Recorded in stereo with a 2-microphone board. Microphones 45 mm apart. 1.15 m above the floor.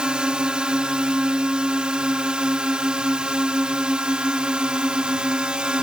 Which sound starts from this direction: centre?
A drone, at 0.0 s.